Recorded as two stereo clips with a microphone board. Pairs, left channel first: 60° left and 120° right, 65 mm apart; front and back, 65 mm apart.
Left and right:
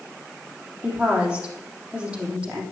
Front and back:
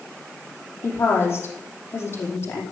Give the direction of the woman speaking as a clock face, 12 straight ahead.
2 o'clock.